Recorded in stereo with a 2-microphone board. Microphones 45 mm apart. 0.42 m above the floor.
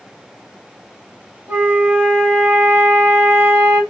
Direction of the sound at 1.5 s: 55° right (ahead or behind).